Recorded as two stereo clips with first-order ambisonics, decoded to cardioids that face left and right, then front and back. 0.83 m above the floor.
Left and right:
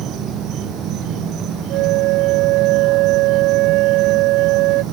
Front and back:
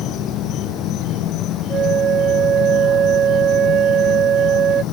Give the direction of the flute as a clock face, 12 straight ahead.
4 o'clock.